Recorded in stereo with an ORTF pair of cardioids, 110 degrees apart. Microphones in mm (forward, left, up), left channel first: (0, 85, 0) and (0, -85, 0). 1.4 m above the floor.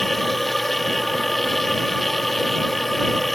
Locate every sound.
0.0 s a machine running: straight ahead